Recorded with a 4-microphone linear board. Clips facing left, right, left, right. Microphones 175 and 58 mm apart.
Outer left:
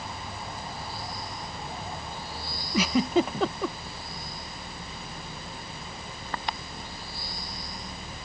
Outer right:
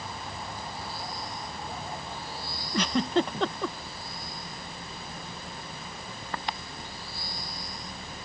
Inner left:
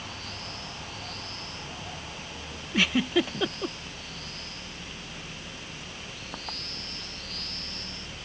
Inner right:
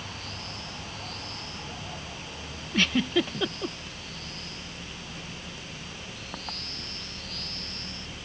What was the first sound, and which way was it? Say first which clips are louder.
A giggle: outer left 2 dB, even; 5° left (ahead or behind).